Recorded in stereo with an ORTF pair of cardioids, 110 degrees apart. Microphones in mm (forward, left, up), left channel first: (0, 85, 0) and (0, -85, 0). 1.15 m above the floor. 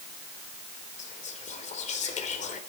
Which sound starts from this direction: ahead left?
Whispering, at 1.0 s.